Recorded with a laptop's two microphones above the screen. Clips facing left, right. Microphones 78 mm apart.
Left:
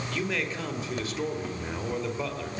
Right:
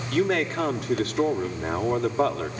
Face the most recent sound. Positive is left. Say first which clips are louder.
# right 9 dB
turn(degrees=-70)  # may be behind; listen again after turning